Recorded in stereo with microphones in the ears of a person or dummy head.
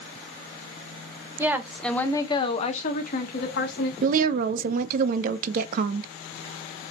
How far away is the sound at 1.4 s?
About 0.8 m.